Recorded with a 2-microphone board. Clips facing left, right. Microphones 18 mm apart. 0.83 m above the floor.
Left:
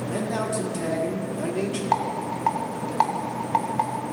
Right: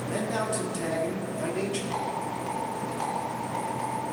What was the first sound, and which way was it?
A man speaking, 5° left (ahead or behind).